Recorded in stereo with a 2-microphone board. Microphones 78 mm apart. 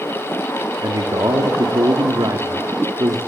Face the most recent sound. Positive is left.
turn(degrees=-55)  # may be behind; listen again after turning